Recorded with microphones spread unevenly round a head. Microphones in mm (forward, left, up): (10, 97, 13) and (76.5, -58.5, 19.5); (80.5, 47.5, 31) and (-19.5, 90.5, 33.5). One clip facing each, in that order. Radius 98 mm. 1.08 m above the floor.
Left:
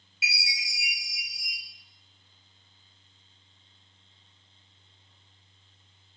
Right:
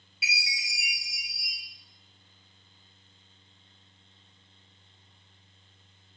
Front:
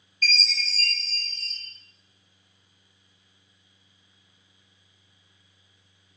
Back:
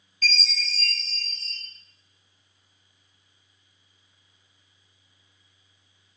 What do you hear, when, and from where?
0.2 s a chime: 160° right, 1.1 m